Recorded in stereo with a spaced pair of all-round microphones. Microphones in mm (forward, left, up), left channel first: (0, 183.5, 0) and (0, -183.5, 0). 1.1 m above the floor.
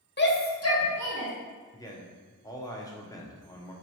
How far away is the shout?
About 0.6 m.